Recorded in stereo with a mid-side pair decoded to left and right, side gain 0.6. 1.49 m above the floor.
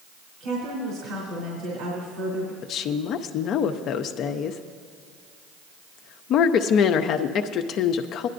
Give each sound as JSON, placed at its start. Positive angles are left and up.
{"t": 0.4, "sound": "a woman speaking", "azimuth_deg": -70, "distance_m": 3.0}
{"t": 2.6, "sound": "a woman speaking", "azimuth_deg": 55, "distance_m": 0.6}